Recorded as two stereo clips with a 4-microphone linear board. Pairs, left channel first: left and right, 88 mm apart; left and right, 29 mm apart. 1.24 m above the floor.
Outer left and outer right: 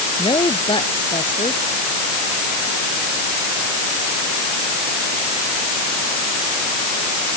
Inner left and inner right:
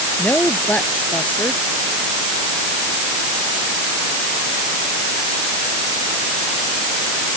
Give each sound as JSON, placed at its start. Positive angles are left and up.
{"t": 0.2, "sound": "a woman speaking", "side_deg": 85}